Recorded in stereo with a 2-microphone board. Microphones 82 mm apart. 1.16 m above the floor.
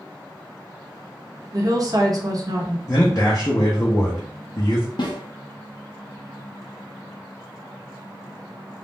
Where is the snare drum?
60° left (ahead or behind), 0.6 m.